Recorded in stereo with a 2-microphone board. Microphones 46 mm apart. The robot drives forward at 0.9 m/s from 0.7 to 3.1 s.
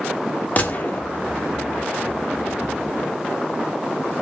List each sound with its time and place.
0.6 s a gunshot: 35° left (ahead or behind), 2.0 m; by 1.0 s 45° left (ahead or behind), 1.8 m